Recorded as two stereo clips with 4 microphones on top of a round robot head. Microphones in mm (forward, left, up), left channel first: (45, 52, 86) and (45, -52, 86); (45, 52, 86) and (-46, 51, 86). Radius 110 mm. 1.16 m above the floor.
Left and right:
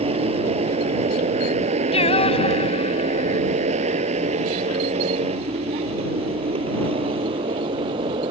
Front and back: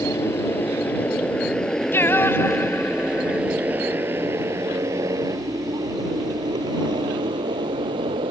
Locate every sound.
0.0 s a motorcycle: 70° right; by 8.3 s 140° right
1.9 s singing: 65° left